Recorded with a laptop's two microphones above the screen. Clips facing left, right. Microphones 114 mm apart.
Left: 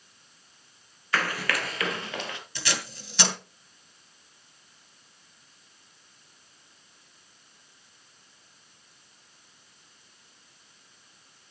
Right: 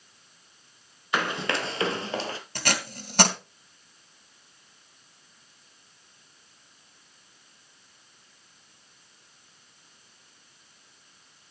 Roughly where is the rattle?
No rattle in this recording.